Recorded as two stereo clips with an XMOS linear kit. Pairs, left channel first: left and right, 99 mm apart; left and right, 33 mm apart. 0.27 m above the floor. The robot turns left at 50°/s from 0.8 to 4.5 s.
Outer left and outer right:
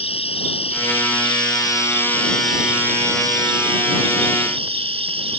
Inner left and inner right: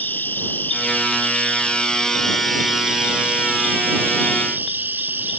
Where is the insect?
85° left; by 5.4 s 100° right.